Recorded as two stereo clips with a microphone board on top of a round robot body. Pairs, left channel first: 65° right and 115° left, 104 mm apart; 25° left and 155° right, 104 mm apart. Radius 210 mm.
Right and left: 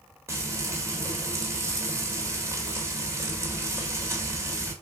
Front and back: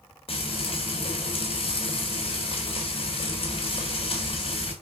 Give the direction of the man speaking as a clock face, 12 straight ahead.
No man speaking in this recording.